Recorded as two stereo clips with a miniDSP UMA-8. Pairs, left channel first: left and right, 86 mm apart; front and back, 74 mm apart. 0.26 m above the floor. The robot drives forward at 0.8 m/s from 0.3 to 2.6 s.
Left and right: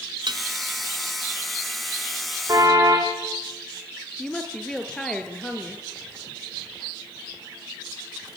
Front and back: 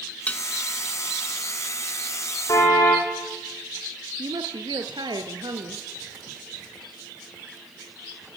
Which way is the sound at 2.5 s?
45° right.